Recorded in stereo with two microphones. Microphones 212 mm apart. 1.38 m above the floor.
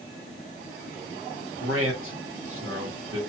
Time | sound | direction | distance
1.6 | a man speaking | 75° right (ahead or behind) | 1.4 m